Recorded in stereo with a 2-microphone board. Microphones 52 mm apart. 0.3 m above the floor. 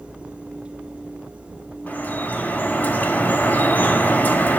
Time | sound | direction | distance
1.9 | dripping | 40° left (ahead or behind) | 2.5 m